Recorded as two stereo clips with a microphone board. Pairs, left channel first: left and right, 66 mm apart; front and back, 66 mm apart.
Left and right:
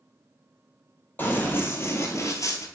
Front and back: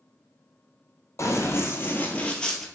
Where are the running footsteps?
30° left, 1.3 m; by 2.7 s 85° left, 0.9 m.